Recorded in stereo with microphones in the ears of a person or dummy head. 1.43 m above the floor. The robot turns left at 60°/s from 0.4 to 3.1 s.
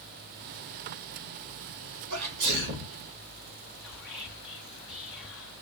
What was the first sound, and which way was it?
A sneeze, 80° right.